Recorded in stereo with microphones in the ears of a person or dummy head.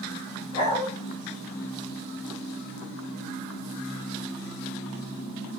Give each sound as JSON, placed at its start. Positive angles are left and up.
{"t": 0.5, "sound": "a dog barking", "side_deg": 35, "distance_m": 3.5}